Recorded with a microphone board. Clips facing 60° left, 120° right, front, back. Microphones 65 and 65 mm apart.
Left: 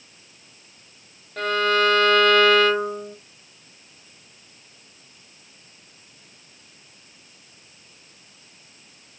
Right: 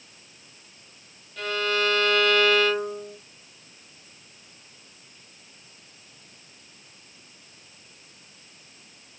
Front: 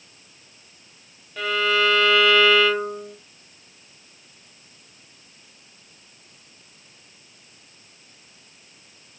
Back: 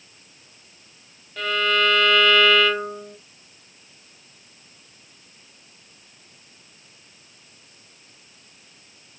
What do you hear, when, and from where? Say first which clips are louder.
1.4 s a violin: left 6 dB, even; 85° left, 1.3 m